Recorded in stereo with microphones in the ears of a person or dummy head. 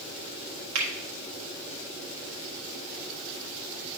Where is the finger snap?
70° right (ahead or behind), 1.6 m.